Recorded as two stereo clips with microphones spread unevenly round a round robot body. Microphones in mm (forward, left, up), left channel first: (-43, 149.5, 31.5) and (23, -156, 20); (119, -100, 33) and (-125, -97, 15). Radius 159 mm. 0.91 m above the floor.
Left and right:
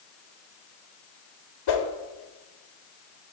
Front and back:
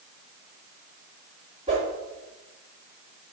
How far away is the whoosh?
About 1.2 m.